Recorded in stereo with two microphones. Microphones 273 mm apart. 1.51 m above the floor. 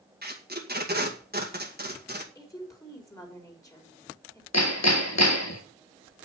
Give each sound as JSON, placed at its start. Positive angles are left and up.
{"t": 0.2, "sound": "tape being pulled", "side_deg": -35, "distance_m": 2.0}
{"t": 2.4, "sound": "a woman speaking", "side_deg": 10, "distance_m": 4.0}
{"t": 4.5, "sound": "hammering", "side_deg": 70, "distance_m": 1.7}